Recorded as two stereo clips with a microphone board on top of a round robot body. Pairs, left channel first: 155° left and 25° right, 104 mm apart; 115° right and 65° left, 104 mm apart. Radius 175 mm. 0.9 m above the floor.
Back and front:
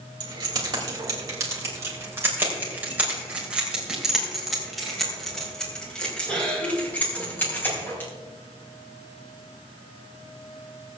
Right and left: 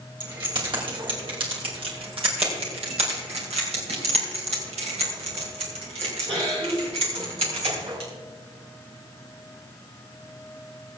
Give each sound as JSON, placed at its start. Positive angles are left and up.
{"t": 0.2, "sound": "keys jangling", "azimuth_deg": 25, "distance_m": 3.5}